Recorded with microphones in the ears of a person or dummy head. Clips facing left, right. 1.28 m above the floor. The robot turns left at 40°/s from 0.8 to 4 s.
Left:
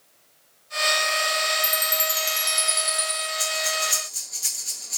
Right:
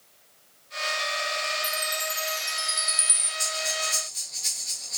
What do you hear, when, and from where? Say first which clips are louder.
1.6 s a chime: left 4 dB; 85° left, 2 m; by 3.3 s 15° left, 2 m
3.4 s breathing: left 1 dB; 30° left (ahead or behind), 4.5 m; by 5.0 s 55° left (ahead or behind), 4.5 m